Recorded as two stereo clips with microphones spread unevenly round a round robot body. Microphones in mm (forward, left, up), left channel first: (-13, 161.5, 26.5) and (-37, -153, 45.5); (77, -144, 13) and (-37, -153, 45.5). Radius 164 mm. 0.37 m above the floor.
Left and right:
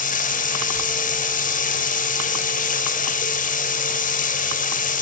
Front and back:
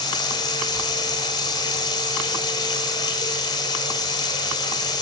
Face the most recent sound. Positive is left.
turn(degrees=30)